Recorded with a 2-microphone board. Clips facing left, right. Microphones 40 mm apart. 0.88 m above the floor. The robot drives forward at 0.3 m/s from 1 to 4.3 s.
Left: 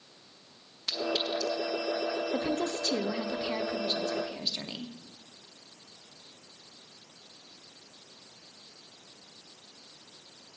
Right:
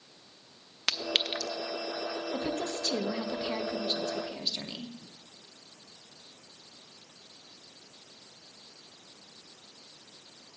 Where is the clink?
75° right (ahead or behind), 0.5 m; by 1.5 s 60° right (ahead or behind), 0.6 m.